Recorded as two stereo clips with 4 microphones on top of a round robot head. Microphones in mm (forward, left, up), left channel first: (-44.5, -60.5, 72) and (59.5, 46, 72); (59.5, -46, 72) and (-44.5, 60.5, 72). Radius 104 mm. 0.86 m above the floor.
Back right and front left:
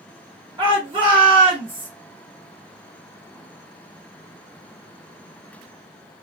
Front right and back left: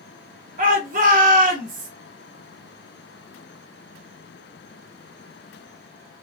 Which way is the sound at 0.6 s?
105° left.